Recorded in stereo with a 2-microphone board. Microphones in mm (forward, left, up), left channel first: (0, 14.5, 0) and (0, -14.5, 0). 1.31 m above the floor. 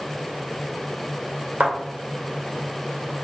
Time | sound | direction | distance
1.6 | a thud | 65° right (ahead or behind) | 1.7 m